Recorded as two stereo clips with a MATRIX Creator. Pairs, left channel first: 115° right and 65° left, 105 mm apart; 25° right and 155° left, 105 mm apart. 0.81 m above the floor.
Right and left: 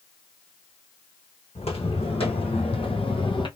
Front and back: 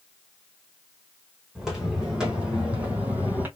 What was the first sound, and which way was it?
Footsteps, 115° right.